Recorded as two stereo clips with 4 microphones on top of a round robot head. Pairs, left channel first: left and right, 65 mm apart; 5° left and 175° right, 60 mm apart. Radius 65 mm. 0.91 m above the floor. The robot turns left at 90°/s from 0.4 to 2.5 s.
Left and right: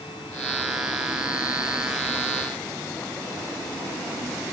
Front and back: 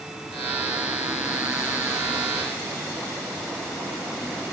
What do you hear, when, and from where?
Only background noise.